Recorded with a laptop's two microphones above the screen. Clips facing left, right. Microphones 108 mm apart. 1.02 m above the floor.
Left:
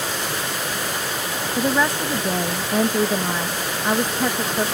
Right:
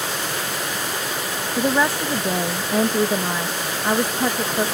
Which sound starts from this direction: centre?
A woman speaking, at 1.6 s.